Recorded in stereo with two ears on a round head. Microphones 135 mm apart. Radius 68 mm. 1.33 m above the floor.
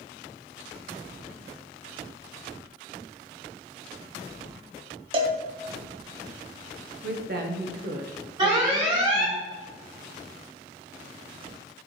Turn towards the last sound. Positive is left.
turn(degrees=-30)  # may be behind; listen again after turning